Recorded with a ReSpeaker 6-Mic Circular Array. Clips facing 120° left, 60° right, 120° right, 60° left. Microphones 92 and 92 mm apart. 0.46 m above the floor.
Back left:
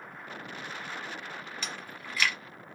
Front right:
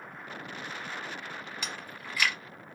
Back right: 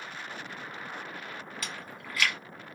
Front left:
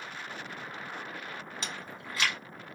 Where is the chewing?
20° left, 1.1 m.